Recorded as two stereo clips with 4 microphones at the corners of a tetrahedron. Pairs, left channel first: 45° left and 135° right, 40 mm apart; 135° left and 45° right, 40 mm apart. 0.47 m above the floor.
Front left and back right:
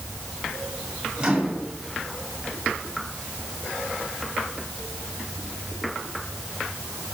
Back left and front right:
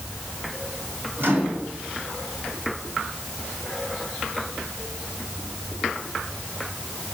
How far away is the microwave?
About 3 m.